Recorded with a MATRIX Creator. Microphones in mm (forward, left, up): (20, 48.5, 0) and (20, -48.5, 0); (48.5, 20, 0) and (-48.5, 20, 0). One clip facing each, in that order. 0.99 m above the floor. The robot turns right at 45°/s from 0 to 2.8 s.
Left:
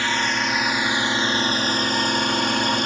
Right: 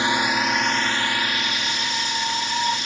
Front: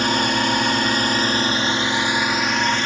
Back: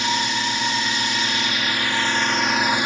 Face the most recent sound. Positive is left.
turn(degrees=105)